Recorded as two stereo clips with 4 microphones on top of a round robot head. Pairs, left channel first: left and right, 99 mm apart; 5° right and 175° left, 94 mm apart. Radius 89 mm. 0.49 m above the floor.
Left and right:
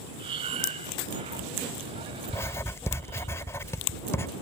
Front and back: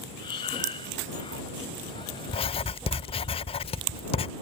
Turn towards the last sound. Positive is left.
turn(degrees=20)